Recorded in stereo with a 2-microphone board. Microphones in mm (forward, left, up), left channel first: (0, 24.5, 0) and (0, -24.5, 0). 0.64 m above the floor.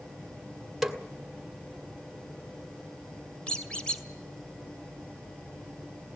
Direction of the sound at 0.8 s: Centre (ahead or behind).